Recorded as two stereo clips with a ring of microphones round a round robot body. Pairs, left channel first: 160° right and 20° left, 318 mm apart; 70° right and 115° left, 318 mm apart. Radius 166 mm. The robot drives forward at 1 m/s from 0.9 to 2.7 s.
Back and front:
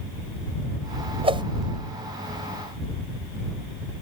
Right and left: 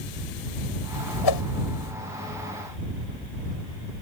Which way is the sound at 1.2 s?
50° right.